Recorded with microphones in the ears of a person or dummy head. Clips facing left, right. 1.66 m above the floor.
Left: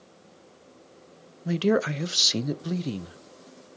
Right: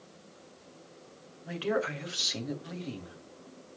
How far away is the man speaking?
About 0.8 m.